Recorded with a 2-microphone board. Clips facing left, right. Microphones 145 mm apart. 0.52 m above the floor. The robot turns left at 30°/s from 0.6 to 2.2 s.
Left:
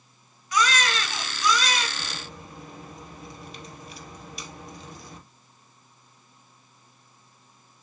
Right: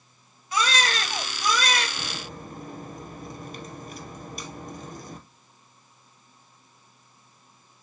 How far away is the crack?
About 2.0 m.